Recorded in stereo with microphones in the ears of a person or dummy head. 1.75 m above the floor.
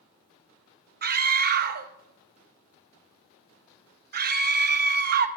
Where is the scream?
50° right (ahead or behind), 0.9 m.